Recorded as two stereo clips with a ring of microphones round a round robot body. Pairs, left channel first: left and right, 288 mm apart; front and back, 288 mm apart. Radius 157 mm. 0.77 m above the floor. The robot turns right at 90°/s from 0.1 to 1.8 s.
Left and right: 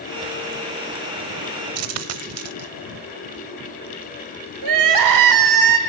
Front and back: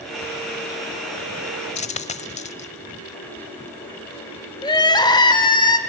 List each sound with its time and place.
1.8 s a dropped coin: 70° right, 0.8 m; by 2.7 s 65° right, 0.8 m
4.6 s crying: 75° right, 1.8 m